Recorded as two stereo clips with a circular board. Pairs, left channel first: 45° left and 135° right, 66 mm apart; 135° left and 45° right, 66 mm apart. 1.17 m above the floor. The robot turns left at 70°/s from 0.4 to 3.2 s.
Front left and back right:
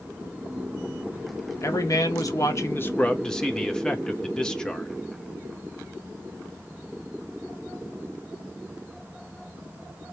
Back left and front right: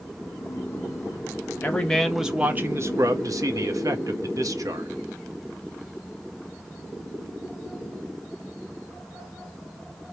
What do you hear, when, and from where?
1.6 s a man speaking: 80° left, 1.1 m; by 4.9 s 35° right, 1.1 m